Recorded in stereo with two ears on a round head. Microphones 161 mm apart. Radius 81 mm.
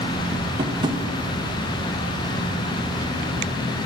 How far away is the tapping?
About 0.5 m.